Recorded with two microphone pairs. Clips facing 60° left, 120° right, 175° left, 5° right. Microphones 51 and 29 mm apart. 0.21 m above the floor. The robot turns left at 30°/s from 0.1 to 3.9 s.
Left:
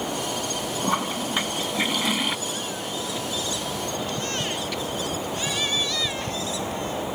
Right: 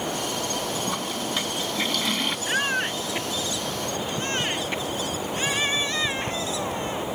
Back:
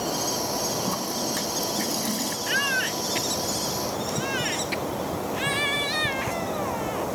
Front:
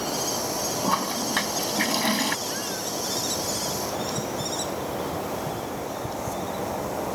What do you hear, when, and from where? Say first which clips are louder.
0.8 s a toilet flushing: left 3 dB, front 3 dB; 25° left; by 2.4 s 25° right
2.5 s a baby crying: right 6 dB, back 6 dB; 140° right; by 7.1 s straight behind